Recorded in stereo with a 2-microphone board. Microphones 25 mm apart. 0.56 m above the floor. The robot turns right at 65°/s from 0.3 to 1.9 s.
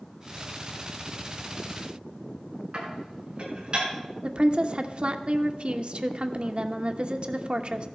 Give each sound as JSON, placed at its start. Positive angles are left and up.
{"t": 2.7, "sound": "dishes clattering", "side_deg": -45, "distance_m": 5.0}
{"t": 4.2, "sound": "a woman speaking", "side_deg": -50, "distance_m": 1.0}